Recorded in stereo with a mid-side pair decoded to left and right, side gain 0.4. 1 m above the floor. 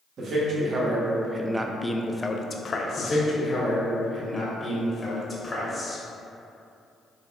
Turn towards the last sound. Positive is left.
turn(degrees=25)